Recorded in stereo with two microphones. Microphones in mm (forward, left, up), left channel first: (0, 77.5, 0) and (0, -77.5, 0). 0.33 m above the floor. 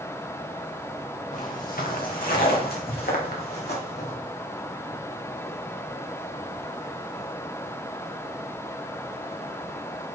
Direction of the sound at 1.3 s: 60° left (ahead or behind).